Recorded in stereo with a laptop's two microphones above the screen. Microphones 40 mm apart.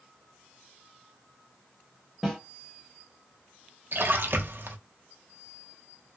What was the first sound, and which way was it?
A snare drum, 5° right (ahead or behind).